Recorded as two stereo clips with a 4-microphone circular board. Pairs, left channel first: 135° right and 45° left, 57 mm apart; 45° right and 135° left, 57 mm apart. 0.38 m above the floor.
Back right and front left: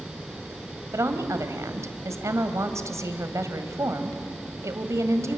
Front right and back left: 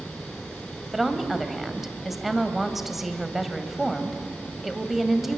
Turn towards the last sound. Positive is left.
turn(degrees=45)